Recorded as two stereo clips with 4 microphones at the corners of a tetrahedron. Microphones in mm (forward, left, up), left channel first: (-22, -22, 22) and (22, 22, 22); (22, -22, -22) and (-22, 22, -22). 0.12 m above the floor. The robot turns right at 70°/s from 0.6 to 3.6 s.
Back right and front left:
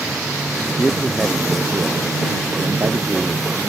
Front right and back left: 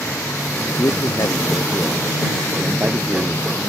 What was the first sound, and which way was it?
A man speaking, 70° right.